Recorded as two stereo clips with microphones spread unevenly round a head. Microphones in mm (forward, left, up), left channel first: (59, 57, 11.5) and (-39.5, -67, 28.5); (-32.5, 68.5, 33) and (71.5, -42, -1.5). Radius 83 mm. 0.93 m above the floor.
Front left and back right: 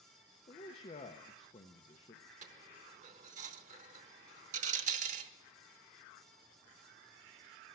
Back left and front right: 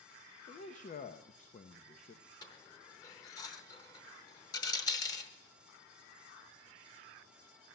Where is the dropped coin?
165° right, 0.9 m.